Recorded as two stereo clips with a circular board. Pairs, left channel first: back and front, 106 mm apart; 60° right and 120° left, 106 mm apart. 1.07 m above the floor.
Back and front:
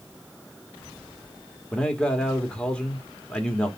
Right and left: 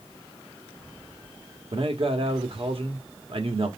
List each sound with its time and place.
1.7 s a man speaking: 100° left, 1.3 m